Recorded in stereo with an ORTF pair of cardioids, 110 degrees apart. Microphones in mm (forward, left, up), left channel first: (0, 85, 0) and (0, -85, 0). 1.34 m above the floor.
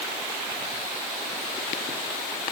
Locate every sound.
Only background noise.